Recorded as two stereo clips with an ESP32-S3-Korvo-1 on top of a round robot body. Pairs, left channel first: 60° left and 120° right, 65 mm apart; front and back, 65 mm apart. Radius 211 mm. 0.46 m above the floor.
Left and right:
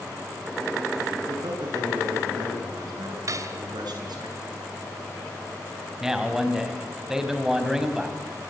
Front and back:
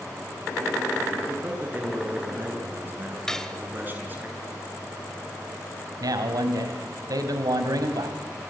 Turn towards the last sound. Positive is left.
turn(degrees=160)